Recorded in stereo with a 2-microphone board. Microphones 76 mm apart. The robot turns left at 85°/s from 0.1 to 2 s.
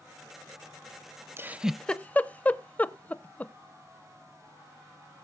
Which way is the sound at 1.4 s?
35° right (ahead or behind).